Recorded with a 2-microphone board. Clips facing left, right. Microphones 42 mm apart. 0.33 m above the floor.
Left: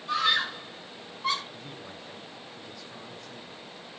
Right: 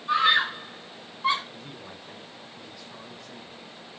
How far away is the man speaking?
About 4 m.